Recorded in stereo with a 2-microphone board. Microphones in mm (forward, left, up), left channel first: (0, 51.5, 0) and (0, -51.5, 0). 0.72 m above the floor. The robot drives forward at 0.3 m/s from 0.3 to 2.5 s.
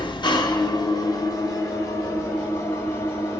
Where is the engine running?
45° left (ahead or behind), 0.7 m; by 3.4 s 25° left (ahead or behind), 1.2 m.